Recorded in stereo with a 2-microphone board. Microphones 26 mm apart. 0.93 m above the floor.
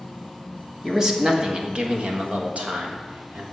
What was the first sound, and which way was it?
A man speaking, 20° right (ahead or behind).